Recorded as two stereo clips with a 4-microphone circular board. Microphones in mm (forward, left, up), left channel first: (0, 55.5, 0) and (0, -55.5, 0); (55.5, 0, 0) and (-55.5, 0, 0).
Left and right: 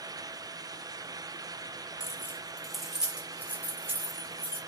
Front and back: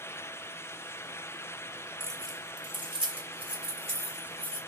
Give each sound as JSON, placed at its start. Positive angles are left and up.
{"t": 2.0, "sound": "keys jangling", "azimuth_deg": 130, "distance_m": 0.9}